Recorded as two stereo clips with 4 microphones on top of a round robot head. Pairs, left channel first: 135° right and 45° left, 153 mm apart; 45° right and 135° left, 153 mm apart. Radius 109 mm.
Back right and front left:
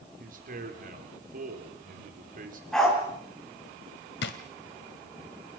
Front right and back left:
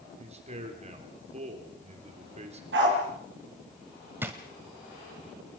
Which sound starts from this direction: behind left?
A dog barking, at 2.7 s.